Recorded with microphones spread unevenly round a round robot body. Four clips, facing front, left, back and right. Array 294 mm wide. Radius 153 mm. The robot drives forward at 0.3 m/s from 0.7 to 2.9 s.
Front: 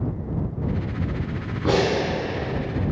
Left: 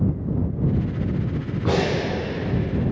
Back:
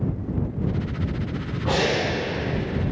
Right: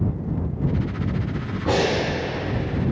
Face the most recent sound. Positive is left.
turn(degrees=50)